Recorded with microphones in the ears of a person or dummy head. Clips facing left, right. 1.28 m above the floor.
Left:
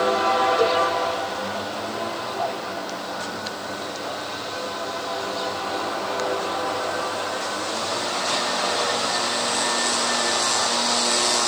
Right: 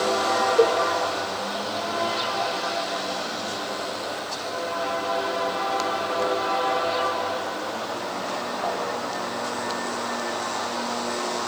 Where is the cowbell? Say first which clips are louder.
Right 5 dB; 40° right (ahead or behind), 2.5 m.